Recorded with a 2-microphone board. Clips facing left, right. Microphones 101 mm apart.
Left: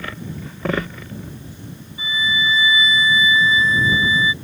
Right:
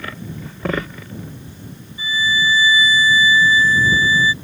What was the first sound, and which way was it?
A violin, 25° left (ahead or behind).